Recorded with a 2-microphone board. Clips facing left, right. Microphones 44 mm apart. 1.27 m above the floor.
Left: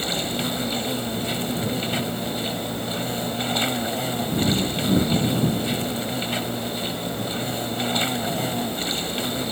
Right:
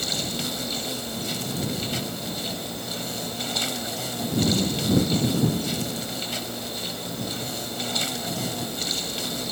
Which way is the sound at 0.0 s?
25° left (ahead or behind).